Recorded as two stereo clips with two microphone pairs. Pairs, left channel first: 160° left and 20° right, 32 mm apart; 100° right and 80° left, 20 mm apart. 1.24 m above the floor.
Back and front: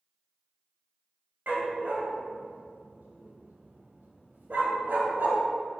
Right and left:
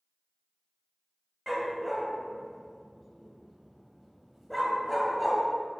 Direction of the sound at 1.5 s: 10° right.